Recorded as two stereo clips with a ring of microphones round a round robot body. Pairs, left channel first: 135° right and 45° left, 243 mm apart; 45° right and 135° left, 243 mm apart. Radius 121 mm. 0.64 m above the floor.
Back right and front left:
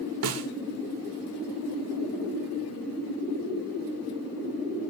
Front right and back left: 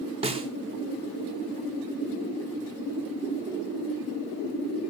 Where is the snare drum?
70° left, 1.7 m.